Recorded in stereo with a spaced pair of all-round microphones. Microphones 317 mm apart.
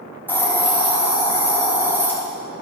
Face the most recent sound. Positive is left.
turn(degrees=5)  # may be behind; listen again after turning